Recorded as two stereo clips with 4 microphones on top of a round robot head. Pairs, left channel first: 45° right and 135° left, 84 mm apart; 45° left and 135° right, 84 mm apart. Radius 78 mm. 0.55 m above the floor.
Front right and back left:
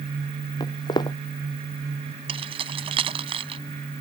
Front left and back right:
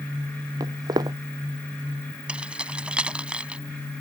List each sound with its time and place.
0.6 s footsteps: 85° right
2.3 s keys jangling: 150° left